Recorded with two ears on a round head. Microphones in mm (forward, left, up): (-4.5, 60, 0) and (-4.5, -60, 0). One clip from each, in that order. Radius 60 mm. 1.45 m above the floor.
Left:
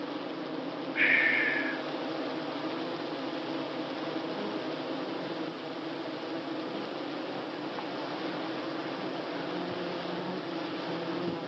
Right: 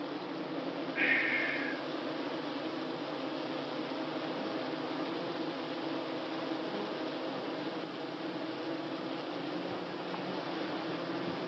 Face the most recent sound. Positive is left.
turn(degrees=30)  # may be behind; listen again after turning